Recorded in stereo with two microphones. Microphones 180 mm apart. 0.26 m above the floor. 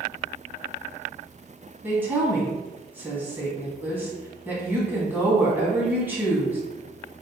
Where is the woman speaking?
10° right (ahead or behind), 1.6 m.